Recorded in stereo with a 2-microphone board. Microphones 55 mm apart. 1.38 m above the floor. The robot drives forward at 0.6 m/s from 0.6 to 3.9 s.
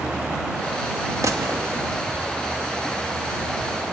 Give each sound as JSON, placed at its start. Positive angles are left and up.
{"t": 1.2, "sound": "a gunshot", "side_deg": -75, "distance_m": 1.7}